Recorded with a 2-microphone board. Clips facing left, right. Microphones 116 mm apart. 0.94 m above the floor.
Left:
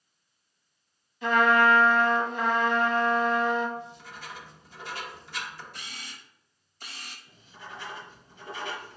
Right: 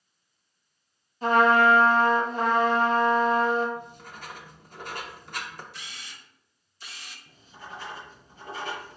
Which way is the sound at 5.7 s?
50° left (ahead or behind).